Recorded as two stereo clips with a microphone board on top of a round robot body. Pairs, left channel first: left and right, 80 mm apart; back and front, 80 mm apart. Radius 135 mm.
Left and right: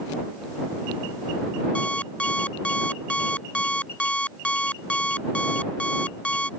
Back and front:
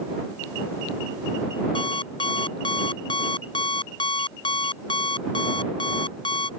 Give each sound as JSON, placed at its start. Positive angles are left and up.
{"t": 1.8, "sound": "an alarm clock", "azimuth_deg": 165}